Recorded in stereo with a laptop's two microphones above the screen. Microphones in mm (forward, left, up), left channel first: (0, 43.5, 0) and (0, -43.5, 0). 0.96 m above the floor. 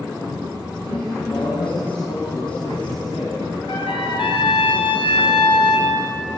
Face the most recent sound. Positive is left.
turn(degrees=70)  # may be behind; listen again after turning